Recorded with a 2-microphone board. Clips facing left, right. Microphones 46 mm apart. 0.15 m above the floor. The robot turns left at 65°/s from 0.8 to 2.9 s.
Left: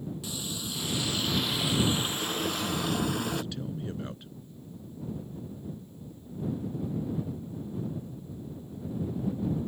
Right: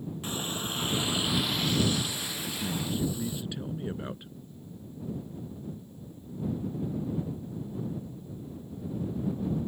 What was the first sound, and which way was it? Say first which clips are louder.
A running tap: right 3 dB; 135° right.